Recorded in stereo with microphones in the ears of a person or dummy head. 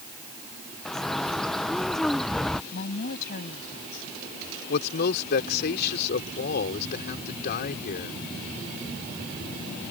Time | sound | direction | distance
0.8 | a bird | 5° left (ahead or behind) | ?
2.7 | a woman speaking | 55° left (ahead or behind) | ?
4.7 | a man speaking | 60° left (ahead or behind) | ?